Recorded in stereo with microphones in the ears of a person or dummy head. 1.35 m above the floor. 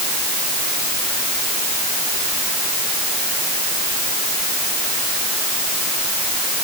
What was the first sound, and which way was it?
Only background noise.